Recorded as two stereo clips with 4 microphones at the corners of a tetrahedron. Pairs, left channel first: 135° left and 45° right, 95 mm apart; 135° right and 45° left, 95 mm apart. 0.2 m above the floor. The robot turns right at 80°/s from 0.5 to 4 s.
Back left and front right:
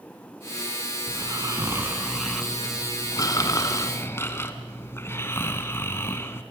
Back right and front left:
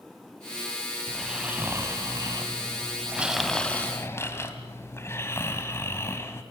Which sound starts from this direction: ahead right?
Snoring, at 1.1 s.